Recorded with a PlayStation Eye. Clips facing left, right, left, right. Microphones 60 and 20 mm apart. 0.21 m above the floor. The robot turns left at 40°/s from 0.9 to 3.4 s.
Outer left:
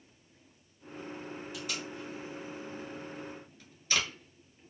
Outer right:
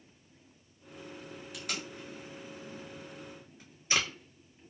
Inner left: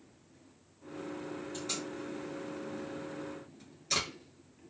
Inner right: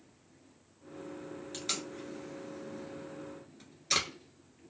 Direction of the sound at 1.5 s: 70° right (ahead or behind).